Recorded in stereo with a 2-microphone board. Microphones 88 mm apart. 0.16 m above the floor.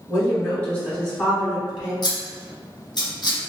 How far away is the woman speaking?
About 2.0 m.